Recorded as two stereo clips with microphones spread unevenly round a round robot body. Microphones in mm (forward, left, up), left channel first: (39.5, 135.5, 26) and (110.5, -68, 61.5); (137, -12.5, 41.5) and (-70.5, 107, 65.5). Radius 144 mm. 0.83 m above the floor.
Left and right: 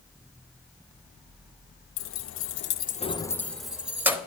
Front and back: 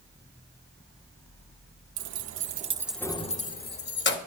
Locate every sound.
2.0 s keys jangling: 130° left, 0.7 m; by 4.2 s 10° left, 1.2 m